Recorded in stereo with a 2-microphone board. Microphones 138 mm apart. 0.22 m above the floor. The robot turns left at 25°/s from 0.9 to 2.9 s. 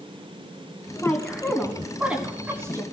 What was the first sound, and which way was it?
A woman speaking, 10° left (ahead or behind).